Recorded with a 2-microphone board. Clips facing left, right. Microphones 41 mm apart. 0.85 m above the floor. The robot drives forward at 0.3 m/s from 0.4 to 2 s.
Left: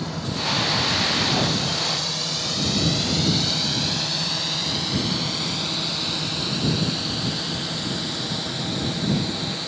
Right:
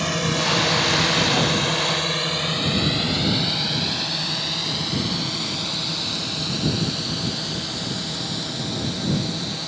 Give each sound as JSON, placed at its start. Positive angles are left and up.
{"t": 0.0, "sound": "a drone", "side_deg": -75}